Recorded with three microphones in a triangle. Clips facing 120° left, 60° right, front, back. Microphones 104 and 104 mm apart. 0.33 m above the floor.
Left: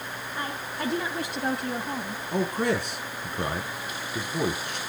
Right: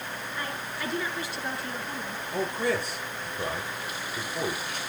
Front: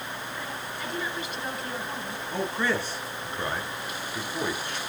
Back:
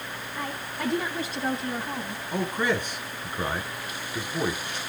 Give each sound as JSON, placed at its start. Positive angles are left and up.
{"t": 0.4, "sound": "a woman speaking", "azimuth_deg": 165, "distance_m": 3.0}
{"t": 2.3, "sound": "a man speaking", "azimuth_deg": 105, "distance_m": 5.0}